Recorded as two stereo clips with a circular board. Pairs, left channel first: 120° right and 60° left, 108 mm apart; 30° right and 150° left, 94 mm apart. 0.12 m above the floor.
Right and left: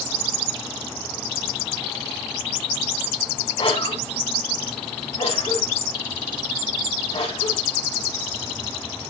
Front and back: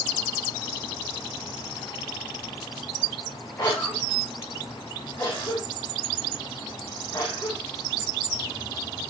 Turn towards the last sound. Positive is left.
turn(degrees=-85)